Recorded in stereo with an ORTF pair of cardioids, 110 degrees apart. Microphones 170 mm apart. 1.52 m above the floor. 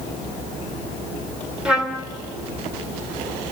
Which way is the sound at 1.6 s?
5° right.